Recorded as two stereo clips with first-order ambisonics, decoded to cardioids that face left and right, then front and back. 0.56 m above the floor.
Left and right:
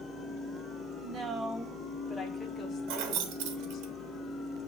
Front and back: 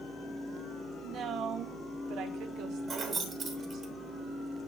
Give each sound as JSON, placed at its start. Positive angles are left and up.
{"t": 1.0, "sound": "a woman speaking", "azimuth_deg": -135, "distance_m": 1.0}
{"t": 2.9, "sound": "keys jangling", "azimuth_deg": -110, "distance_m": 1.1}